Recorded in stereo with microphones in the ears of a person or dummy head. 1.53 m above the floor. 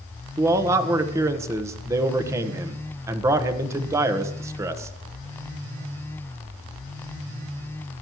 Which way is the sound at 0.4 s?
15° right (ahead or behind).